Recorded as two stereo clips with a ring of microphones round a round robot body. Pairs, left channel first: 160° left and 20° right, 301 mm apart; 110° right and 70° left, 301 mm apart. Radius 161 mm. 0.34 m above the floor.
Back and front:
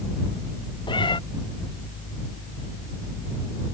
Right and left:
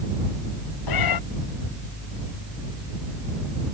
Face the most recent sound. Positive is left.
turn(degrees=-125)